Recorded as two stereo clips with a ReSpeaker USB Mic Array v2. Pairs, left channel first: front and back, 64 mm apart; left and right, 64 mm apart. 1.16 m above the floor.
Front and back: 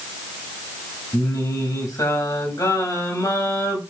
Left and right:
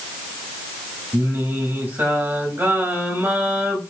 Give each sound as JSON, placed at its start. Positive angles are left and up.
{"t": 1.1, "sound": "singing", "azimuth_deg": -30, "distance_m": 3.0}